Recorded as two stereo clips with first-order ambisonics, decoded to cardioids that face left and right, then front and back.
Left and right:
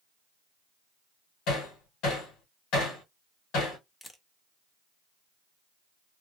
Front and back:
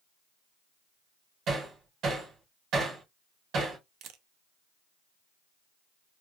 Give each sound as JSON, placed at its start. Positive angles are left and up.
{"t": 1.5, "sound": "hammering", "azimuth_deg": 130, "distance_m": 3.0}
{"t": 4.0, "sound": "a camera shutter", "azimuth_deg": 170, "distance_m": 0.7}